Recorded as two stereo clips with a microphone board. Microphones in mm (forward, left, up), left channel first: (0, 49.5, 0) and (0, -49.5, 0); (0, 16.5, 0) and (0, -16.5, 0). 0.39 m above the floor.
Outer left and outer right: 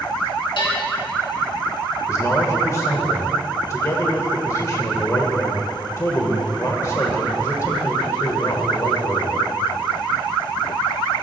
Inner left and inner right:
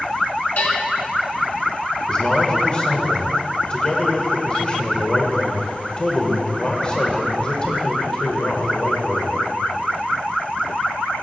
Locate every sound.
0.6 s a bell: 60° left (ahead or behind), 3 m
2.1 s a man speaking: 30° left (ahead or behind), 1.2 m